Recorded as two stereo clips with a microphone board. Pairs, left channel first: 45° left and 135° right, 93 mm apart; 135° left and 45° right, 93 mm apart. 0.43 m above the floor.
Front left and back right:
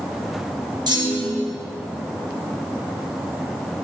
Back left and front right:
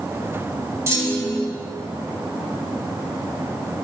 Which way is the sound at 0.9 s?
100° right.